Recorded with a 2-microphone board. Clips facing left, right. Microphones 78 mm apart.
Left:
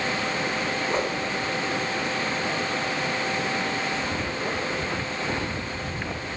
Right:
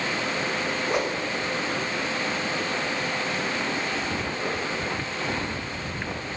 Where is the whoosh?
10° right (ahead or behind), 6 m.